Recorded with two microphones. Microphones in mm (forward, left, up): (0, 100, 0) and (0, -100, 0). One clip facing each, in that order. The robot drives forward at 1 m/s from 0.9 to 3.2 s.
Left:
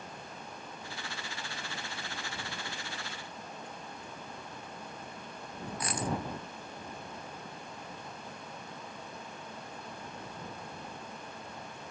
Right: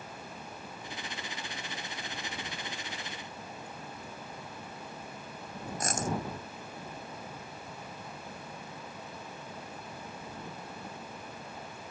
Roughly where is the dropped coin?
Right.